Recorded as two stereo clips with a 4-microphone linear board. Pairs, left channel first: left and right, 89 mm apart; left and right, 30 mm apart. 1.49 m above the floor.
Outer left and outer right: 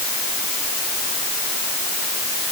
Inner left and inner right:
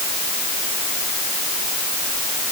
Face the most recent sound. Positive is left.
No sound to turn to.